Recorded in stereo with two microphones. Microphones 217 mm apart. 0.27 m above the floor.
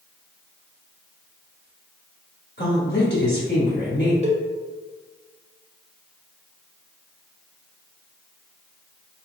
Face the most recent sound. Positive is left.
turn(degrees=-30)  # may be behind; listen again after turning